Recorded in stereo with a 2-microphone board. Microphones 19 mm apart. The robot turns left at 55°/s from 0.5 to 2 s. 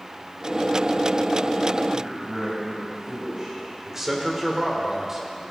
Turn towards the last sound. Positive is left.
turn(degrees=-25)  # may be behind; listen again after turning